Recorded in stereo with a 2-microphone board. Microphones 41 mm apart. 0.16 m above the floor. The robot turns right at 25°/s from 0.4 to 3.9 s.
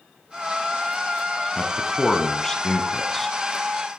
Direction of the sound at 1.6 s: 20° left (ahead or behind).